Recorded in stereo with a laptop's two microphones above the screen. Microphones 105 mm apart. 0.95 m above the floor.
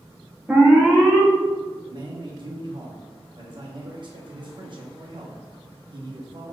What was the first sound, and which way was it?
An alarm, 10° right (ahead or behind).